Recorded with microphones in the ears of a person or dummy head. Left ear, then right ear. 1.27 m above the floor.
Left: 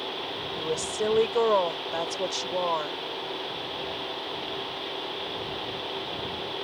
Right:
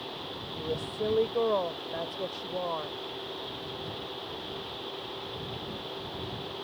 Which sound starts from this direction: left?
A woman speaking, at 0.6 s.